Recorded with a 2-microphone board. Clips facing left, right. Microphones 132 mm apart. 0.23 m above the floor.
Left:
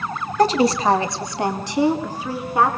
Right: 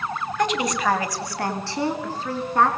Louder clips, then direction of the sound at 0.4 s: Left 7 dB; 35° left (ahead or behind).